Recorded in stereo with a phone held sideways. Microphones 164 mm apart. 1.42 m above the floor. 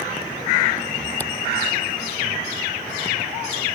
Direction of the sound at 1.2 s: 10° left (ahead or behind).